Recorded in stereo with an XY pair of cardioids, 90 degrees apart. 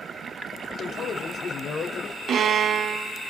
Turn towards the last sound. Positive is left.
turn(degrees=-65)